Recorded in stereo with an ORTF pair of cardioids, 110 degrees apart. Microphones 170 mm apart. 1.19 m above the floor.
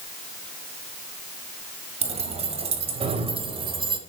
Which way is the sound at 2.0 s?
40° right.